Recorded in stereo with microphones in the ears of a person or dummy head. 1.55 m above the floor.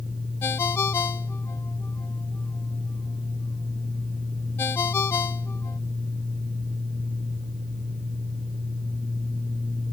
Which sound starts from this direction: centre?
A ringtone, at 0.4 s.